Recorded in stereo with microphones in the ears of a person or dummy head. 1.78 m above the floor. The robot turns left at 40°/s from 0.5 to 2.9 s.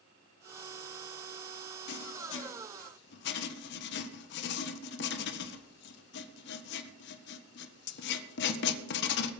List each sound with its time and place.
1.9 s writing: 65° left (ahead or behind), 1.4 m